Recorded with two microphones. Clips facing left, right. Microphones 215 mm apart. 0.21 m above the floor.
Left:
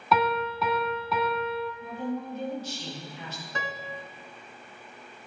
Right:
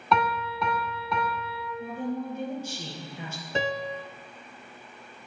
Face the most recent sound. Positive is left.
turn(degrees=-35)  # may be behind; listen again after turning